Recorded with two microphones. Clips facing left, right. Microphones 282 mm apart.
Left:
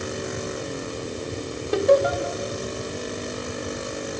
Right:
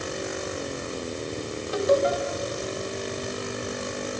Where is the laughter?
65° left (ahead or behind), 2.5 m.